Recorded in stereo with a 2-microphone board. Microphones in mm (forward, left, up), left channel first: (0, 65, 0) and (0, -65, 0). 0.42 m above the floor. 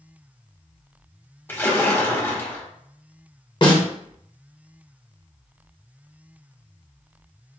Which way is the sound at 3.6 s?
40° left (ahead or behind).